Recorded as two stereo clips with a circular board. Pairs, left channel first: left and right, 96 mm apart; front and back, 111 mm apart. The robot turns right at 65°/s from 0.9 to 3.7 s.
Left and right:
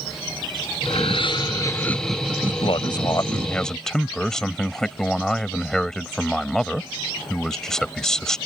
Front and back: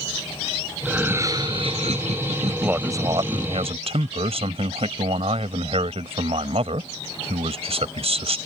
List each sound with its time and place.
0.8 s laughter: 100° left; by 3.5 s 95° right
2.5 s a man speaking: 95° left; by 8.4 s 175° left